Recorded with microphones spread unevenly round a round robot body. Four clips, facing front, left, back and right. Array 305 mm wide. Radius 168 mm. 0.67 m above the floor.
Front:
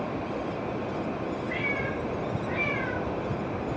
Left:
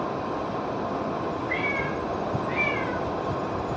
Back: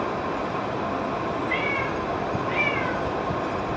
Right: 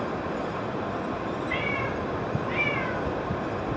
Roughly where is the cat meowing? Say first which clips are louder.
Left 1 dB, back 4 dB; behind.